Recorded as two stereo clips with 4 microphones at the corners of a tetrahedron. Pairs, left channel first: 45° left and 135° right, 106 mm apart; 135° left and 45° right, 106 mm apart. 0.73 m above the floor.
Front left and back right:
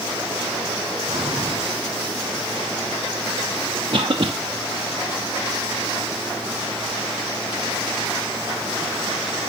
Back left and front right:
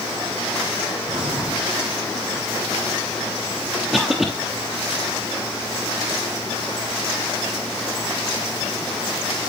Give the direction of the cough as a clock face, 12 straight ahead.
4 o'clock.